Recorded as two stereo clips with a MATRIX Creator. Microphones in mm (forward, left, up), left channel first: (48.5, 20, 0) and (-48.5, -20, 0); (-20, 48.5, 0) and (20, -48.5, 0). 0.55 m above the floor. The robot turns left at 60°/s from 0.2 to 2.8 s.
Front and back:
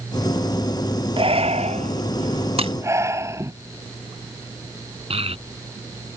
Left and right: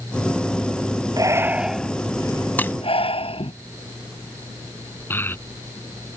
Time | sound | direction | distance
1.2 | breathing | 120° right | ?
2.6 | breaking glass | 175° right | ?
5.1 | a child speaking | straight behind | ?